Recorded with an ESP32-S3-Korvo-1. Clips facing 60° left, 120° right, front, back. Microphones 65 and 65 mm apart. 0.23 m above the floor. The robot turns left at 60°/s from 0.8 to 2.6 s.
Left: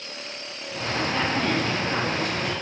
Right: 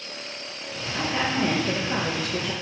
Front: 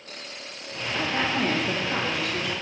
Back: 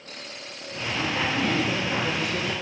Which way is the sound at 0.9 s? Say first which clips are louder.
Even, front 1 dB; 35° right.